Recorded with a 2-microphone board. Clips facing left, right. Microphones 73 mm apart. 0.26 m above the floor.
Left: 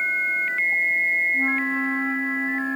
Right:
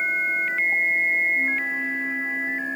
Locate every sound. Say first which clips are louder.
1.3 s a flute: left 2 dB; 90° left, 6 m